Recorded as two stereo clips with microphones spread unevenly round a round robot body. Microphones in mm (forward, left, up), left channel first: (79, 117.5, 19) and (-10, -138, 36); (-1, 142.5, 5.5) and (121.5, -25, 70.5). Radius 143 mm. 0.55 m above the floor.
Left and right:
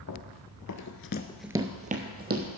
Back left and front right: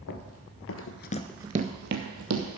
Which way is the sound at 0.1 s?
110° left.